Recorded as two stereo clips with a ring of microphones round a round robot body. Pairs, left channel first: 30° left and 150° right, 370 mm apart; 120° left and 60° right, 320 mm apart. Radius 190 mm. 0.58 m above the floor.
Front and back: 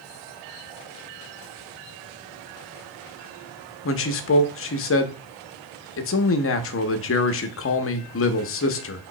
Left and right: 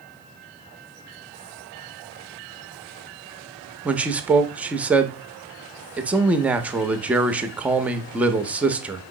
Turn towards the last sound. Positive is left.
turn(degrees=25)